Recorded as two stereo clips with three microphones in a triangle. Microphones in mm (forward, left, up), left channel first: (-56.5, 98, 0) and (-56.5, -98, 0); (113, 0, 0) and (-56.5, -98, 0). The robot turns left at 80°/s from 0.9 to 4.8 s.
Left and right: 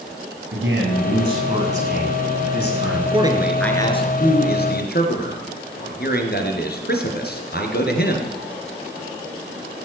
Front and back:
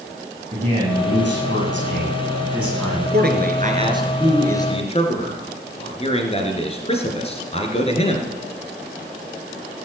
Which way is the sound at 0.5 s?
95° right.